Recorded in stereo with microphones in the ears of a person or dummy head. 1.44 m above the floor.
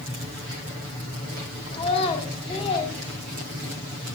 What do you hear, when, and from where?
1.7 s a child speaking: 35° left (ahead or behind), 5.5 m